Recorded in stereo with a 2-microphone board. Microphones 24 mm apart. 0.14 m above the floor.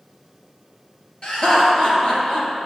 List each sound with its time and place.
1.2 s laughter: 45° left (ahead or behind), 2.5 m